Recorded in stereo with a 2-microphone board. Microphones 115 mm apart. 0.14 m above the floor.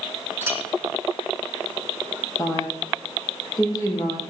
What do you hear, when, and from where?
0.4 s a clink: 20° right (ahead or behind), 3.5 m
2.4 s a woman speaking: 30° left (ahead or behind), 5 m